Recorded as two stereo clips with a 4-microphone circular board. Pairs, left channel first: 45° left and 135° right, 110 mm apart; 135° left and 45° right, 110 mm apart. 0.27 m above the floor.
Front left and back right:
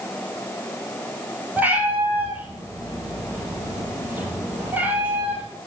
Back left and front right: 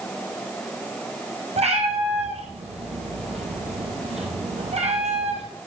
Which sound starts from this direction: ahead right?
A cat meowing, at 1.6 s.